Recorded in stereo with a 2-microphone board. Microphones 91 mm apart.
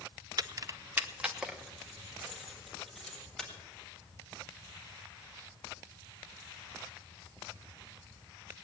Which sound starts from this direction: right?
Keys jangling, at 0.4 s.